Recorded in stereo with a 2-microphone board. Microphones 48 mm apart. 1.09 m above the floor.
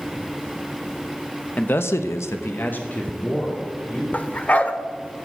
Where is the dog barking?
35° left (ahead or behind), 0.9 m.